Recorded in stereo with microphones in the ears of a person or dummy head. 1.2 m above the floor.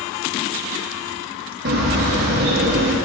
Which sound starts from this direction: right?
A bird, at 1.6 s.